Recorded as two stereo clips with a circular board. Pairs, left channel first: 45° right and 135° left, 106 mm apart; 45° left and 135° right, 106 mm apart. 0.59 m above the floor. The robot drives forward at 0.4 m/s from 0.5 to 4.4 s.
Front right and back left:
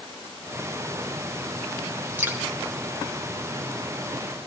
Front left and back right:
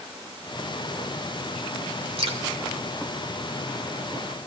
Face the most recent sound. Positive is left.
turn(degrees=-165)